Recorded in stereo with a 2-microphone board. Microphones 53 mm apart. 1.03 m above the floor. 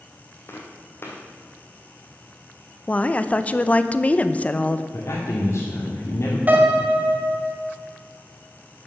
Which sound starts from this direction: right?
A piano, at 6.5 s.